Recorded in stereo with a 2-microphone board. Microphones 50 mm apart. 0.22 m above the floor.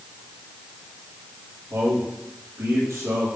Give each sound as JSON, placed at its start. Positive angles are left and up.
{"t": 1.7, "sound": "a man speaking", "side_deg": -60, "distance_m": 5.5}